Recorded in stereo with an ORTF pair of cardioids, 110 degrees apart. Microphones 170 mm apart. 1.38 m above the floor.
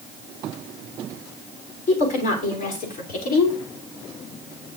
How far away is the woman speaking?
About 4 m.